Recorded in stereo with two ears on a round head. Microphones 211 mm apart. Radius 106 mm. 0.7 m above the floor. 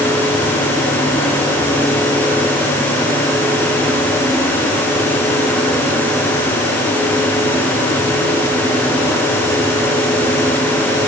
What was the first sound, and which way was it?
Only background noise.